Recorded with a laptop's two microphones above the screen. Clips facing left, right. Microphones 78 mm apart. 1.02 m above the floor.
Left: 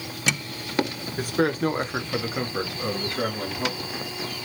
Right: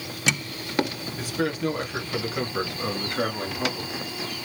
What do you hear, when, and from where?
1.2 s a man speaking: 50° left (ahead or behind), 0.8 m; by 3.9 s 35° right (ahead or behind), 1.2 m